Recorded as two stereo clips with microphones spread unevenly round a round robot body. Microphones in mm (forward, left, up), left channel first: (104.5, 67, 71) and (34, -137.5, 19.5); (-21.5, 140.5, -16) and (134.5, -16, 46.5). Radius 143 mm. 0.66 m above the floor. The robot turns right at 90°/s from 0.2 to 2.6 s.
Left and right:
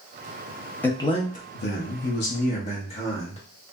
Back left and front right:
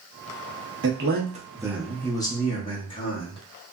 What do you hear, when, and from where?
0.8 s a man speaking: 25° right, 1.0 m; by 3.4 s 135° left, 1.0 m